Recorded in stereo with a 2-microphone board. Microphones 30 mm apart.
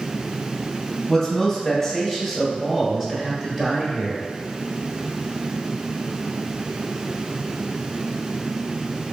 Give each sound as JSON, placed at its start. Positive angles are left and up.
{"t": 1.1, "sound": "a man speaking", "side_deg": 10, "distance_m": 1.9}